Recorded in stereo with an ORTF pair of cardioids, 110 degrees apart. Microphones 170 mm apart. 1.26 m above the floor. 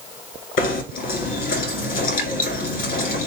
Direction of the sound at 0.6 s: 60° left.